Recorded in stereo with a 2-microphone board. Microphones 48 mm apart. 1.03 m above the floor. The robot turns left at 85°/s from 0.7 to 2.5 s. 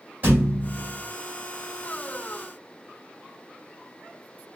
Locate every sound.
0.2 s a thud: 40° right (ahead or behind), 3.5 m; by 0.9 s 60° right (ahead or behind), 3.5 m